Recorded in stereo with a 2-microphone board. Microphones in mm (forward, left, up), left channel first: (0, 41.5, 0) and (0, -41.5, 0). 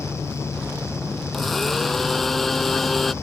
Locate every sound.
1.3 s a blender: centre (ahead or behind)